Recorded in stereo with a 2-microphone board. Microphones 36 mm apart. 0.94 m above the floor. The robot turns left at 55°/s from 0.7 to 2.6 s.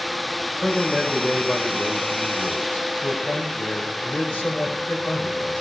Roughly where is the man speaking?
Behind.